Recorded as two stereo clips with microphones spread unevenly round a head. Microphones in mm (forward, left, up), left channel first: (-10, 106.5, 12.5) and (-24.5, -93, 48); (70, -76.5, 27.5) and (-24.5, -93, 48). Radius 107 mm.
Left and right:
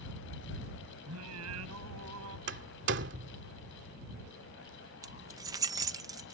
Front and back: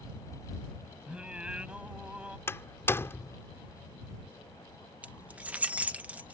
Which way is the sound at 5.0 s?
130° right.